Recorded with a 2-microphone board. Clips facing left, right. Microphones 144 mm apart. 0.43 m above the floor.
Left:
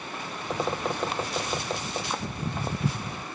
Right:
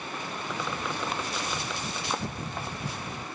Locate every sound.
0.5 s a bird: 40° left (ahead or behind)
2.3 s footsteps: 40° left (ahead or behind)